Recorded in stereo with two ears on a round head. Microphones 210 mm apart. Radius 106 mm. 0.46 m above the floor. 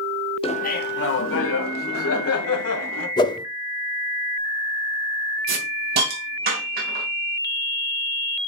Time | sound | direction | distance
0.4 | laughter | 25° left (ahead or behind) | 0.8 m
3.2 | a whoosh | 20° left (ahead or behind) | 0.7 m
5.5 | a hiss | 40° right (ahead or behind) | 3.5 m